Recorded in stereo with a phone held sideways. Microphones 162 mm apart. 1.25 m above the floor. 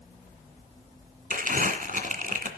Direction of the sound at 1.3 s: 55° right (ahead or behind).